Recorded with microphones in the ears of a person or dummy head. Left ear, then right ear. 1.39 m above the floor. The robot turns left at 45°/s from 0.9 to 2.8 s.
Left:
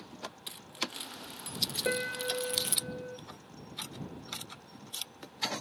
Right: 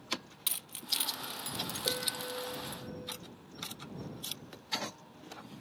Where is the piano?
100° left; by 3.2 s 60° left.